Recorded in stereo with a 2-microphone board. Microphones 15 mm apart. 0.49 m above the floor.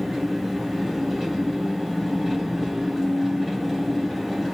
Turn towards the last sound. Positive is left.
turn(degrees=-15)  # may be behind; listen again after turning